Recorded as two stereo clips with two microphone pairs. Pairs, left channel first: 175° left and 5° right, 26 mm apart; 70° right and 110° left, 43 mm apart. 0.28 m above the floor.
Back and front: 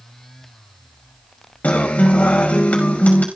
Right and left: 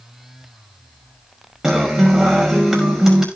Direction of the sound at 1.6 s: 170° right.